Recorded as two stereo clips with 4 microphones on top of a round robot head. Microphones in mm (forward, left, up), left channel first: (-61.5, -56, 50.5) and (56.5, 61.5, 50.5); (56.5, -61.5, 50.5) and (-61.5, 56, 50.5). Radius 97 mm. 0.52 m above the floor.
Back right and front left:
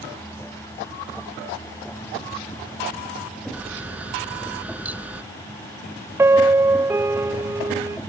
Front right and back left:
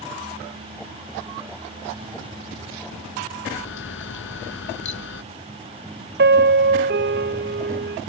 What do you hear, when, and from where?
3.5 s a camera shutter: 35° right
6.2 s a piano: 120° left